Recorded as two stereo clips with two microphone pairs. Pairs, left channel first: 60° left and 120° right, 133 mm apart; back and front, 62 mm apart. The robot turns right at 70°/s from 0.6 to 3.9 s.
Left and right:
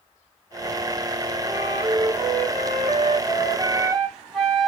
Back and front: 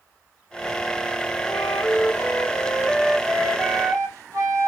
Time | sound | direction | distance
1.5 | a flute | 160° left | 1.0 m